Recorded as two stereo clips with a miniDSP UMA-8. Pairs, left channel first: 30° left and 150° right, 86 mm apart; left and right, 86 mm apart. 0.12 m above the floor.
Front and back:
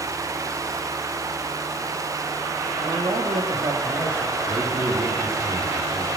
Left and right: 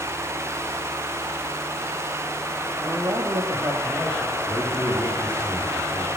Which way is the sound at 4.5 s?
165° left.